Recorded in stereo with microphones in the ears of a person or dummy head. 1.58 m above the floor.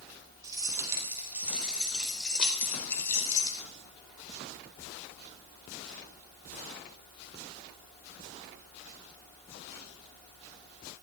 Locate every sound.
0.4 s keys jangling: 20° right (ahead or behind), 4 m; by 3.6 s 20° left (ahead or behind), 3.5 m